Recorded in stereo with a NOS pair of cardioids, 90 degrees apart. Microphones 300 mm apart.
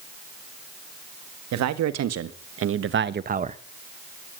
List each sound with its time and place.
1.5 s a man speaking: 65° right, 1.8 m; by 3.6 s 20° right, 1.1 m